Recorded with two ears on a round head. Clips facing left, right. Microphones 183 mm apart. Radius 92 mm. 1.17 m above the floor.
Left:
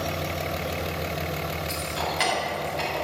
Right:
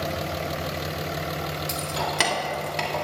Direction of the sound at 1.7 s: 65° right (ahead or behind).